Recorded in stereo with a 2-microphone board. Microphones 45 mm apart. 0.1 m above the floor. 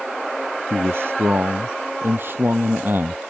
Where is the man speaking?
55° right (ahead or behind); by 3.2 s 45° right (ahead or behind).